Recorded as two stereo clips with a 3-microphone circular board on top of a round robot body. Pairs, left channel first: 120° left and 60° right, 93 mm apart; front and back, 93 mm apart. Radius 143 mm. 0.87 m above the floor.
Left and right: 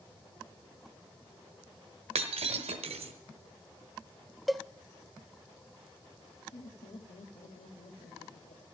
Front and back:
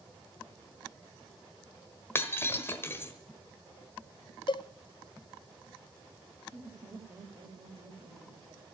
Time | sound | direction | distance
2.1 | breaking glass | 65° right | 1.2 m
4.5 | a cowbell | 30° left | 0.6 m
6.5 | laughter | 125° left | 1.8 m